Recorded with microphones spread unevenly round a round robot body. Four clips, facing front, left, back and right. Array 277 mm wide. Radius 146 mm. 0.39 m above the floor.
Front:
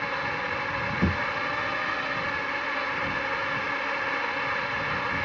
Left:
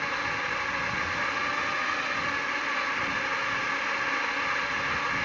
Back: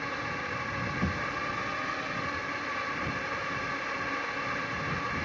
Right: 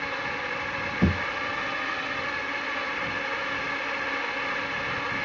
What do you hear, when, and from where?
0.0 s a drone: 85° right
1.0 s a thud: 65° right